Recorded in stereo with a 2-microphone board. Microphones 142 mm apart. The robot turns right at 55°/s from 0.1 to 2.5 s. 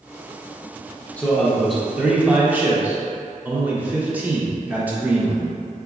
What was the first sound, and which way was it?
A man speaking, 10° left (ahead or behind).